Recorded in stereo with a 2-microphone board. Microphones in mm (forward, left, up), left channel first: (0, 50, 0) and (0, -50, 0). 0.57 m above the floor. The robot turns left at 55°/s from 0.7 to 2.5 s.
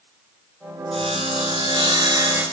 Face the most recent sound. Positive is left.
turn(degrees=-160)